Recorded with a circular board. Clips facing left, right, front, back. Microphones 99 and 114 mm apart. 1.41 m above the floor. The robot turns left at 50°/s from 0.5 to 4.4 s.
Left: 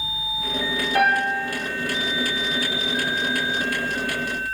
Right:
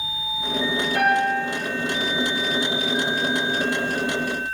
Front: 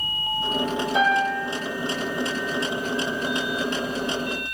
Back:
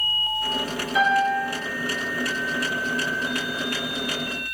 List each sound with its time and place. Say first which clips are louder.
0.9 s a piano: even, back 2 dB; 55° left, 0.9 m; by 1.4 s 30° left, 0.9 m